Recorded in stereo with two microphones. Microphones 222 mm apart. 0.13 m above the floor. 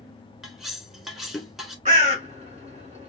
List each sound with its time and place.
0.4 s cutlery clinking: centre (ahead or behind), 0.9 m
1.9 s a bird: 35° right (ahead or behind), 1.1 m